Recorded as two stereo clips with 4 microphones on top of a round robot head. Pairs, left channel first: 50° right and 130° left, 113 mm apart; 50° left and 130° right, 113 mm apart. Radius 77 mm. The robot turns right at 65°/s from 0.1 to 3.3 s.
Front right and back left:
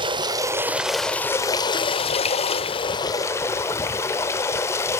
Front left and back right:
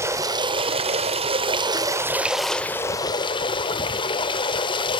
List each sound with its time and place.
0.0 s running water: 165° left, 1.6 m; by 5.0 s 15° left, 1.6 m